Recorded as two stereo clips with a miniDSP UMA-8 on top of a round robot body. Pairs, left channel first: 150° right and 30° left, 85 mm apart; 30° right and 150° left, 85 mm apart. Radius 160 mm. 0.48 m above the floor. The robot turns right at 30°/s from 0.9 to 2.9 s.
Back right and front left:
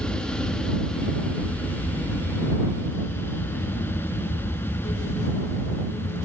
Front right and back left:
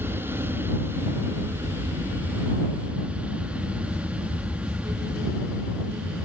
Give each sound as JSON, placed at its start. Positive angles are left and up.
{"t": 0.0, "sound": "an aircraft", "azimuth_deg": 145}